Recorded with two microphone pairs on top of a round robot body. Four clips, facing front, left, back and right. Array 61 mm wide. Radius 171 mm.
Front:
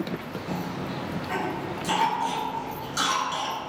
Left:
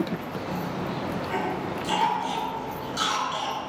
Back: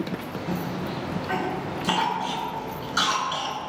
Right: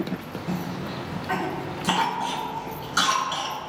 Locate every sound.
0.5 s a cough: 115° right, 7.5 m